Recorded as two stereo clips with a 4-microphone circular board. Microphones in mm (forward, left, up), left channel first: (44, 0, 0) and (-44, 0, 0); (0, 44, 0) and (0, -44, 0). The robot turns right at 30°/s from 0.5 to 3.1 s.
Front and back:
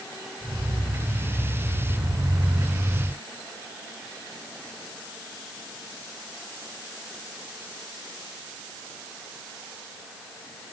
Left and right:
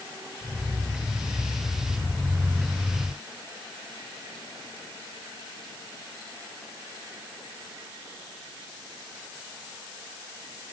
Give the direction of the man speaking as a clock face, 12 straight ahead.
I don't hear a man speaking.